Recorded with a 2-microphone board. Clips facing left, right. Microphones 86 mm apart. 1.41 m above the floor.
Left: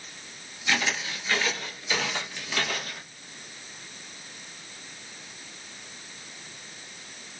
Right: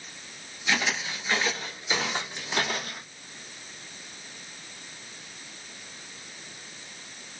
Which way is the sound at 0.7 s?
10° right (ahead or behind).